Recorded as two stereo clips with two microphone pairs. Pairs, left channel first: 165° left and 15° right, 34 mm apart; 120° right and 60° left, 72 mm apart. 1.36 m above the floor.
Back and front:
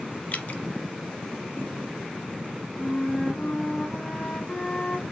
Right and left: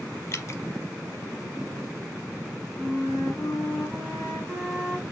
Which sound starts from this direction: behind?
Dripping, at 0.3 s.